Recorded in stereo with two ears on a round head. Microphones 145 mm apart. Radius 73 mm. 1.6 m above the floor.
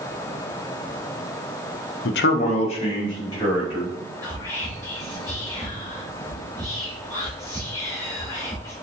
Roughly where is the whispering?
Centre.